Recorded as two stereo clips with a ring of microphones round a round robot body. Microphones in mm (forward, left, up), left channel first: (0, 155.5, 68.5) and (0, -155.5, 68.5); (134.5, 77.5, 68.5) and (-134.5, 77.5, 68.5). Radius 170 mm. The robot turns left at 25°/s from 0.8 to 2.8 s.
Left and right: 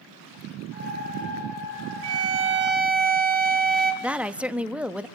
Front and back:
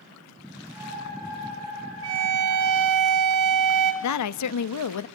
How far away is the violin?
About 3 m.